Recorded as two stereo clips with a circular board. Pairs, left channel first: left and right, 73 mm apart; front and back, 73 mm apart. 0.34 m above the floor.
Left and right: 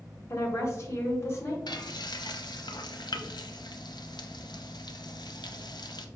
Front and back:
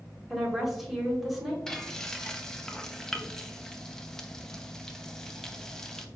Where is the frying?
80° left, 0.5 m.